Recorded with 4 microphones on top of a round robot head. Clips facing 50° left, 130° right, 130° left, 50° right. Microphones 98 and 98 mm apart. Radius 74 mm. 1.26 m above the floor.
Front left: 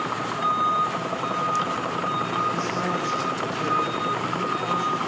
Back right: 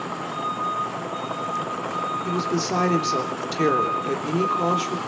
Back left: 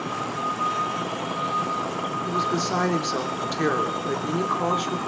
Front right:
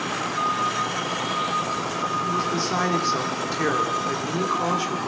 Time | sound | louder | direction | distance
2.2 | a woman speaking | back right 1 dB, even | 150° right | 3 m